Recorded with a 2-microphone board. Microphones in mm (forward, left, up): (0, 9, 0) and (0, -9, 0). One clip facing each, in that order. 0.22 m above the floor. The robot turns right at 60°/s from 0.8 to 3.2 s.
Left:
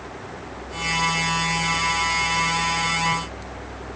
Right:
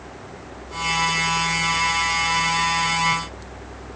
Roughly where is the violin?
I don't hear a violin.